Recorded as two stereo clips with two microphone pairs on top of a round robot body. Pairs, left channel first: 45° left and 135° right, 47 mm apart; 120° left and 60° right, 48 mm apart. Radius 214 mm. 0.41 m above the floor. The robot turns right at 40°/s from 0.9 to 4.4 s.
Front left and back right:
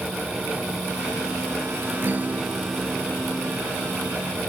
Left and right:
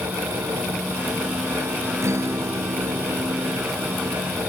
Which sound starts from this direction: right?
A guitar, at 2.0 s.